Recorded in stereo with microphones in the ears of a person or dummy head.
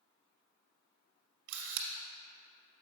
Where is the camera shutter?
70° right (ahead or behind), 0.9 m.